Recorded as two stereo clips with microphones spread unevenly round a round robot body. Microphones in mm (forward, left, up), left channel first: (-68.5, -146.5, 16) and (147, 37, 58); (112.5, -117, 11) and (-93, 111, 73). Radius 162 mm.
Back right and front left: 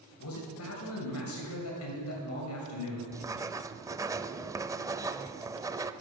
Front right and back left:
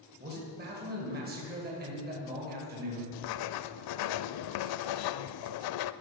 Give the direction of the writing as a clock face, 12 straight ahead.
1 o'clock.